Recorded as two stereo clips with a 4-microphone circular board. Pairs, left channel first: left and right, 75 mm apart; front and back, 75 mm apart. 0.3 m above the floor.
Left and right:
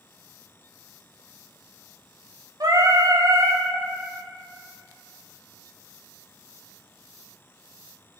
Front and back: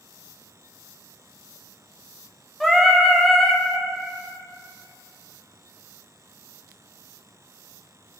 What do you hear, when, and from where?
2.6 s singing: 85° right, 0.9 m